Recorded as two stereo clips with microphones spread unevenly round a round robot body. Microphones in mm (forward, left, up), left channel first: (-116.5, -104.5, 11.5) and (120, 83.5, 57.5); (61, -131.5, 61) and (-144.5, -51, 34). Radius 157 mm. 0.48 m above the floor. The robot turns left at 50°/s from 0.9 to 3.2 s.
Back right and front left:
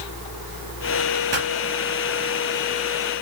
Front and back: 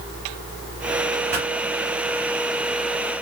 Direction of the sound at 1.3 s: 90° left.